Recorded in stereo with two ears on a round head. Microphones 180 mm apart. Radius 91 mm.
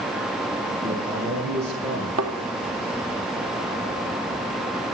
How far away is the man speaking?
About 7.5 m.